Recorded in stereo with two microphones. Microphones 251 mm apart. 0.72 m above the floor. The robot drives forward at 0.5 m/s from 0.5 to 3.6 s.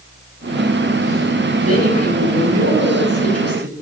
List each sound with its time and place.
1.6 s a woman speaking: 80° right, 7 m; by 3.7 s 70° right (ahead or behind), 7.5 m